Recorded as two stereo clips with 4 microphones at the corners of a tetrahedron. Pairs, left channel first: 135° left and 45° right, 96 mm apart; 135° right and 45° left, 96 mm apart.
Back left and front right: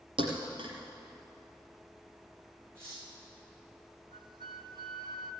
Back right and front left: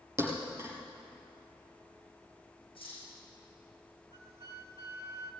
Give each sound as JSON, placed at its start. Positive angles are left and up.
{"t": 0.2, "sound": "a thud", "azimuth_deg": -20, "distance_m": 5.0}
{"t": 2.8, "sound": "cutlery clinking", "azimuth_deg": -115, "distance_m": 6.5}
{"t": 4.1, "sound": "a flute", "azimuth_deg": -10, "distance_m": 0.9}